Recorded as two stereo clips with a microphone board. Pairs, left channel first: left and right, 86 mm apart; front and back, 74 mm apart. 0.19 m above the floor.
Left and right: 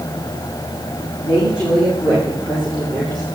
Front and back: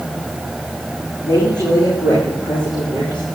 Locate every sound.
1.2 s a woman speaking: 10° right, 9.5 m; by 3.2 s straight ahead, 8 m